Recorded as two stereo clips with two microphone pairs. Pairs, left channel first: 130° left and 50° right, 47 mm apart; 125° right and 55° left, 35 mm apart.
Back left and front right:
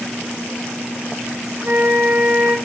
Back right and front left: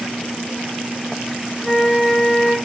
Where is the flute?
40° right, 1.1 m.